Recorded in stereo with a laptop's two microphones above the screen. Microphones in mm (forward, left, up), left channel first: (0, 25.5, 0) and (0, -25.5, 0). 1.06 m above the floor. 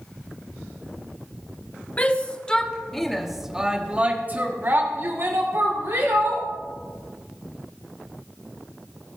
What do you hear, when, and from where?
2.0 s a shout: 30° left (ahead or behind), 1.9 m; by 6.5 s 70° right (ahead or behind), 2.5 m